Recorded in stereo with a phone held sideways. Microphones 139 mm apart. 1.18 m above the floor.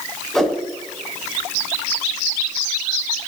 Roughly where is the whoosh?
Centre.